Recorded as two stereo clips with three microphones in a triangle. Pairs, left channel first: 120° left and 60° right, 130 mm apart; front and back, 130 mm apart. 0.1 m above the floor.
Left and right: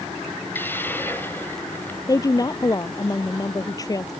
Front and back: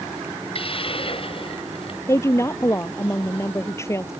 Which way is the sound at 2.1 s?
65° left.